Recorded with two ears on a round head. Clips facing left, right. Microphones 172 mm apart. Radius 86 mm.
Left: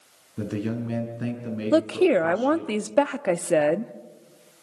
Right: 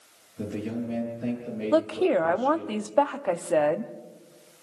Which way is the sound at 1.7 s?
25° left (ahead or behind).